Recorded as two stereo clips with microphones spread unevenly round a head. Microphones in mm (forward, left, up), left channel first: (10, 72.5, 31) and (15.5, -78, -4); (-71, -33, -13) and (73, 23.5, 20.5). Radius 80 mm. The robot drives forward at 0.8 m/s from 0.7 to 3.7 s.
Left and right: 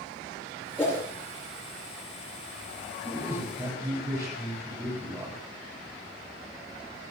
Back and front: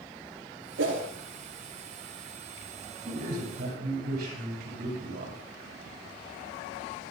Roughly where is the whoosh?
Ahead.